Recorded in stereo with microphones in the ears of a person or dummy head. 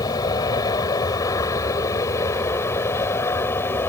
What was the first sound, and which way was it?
An aircraft, 25° left (ahead or behind).